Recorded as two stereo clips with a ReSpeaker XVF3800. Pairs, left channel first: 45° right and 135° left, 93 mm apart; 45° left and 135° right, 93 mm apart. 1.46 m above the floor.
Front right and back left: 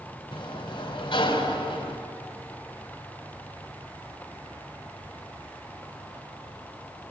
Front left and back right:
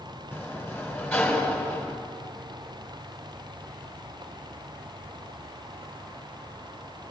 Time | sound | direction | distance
0.3 | a sliding door | 20° right | 3 m